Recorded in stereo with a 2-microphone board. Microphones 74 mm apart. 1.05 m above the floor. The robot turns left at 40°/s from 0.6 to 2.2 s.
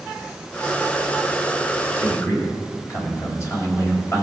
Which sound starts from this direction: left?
A man speaking, at 2.0 s.